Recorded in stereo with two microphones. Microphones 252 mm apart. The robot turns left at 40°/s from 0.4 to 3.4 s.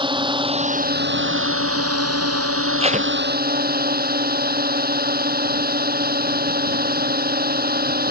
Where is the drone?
20° right; by 8.1 s 140° right.